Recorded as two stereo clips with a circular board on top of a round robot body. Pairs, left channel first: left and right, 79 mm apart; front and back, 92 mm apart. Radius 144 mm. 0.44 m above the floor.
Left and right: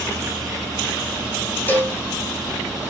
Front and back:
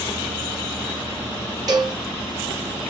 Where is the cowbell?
150° left, 1.2 m.